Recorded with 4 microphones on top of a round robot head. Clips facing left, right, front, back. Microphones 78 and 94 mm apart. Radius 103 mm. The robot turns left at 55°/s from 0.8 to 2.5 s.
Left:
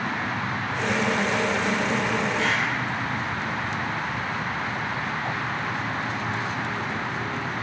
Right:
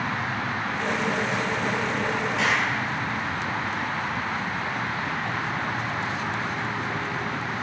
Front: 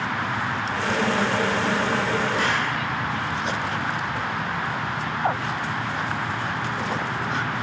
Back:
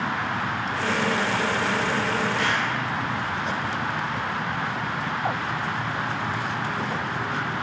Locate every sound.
2.4 s a clap: 60° right, 3 m; by 2.8 s 65° right, 3 m